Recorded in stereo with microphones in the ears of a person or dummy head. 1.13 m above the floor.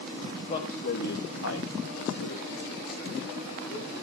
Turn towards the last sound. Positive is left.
turn(degrees=40)  # may be behind; listen again after turning